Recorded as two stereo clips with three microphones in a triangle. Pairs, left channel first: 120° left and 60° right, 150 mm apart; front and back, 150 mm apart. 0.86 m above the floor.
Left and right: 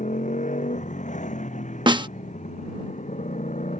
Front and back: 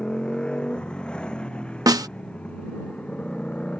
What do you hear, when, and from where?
0.0 s a motorcycle: 85° left
1.9 s a snare drum: 115° right